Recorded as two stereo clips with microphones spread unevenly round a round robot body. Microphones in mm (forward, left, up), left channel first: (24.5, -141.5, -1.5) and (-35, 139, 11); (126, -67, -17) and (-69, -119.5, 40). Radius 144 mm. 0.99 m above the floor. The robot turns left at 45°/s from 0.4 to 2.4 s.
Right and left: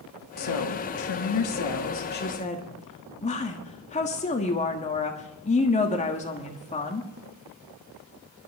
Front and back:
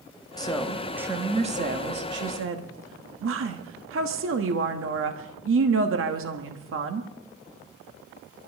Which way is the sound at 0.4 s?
55° right.